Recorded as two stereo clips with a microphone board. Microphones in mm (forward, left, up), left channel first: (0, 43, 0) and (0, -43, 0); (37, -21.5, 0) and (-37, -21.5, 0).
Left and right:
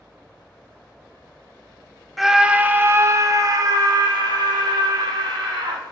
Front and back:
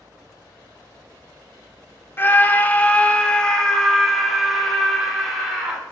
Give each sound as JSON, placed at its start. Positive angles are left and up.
{"t": 2.2, "sound": "a scream", "azimuth_deg": -5, "distance_m": 0.9}